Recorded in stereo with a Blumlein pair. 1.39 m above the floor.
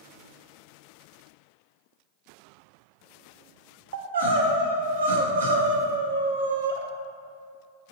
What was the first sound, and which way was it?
Crying, 65° right.